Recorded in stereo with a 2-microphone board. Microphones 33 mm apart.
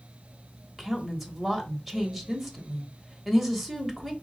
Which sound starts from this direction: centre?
A woman speaking, at 0.8 s.